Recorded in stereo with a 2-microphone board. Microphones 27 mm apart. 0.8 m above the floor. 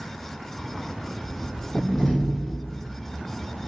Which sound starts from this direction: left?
A door slam, at 1.8 s.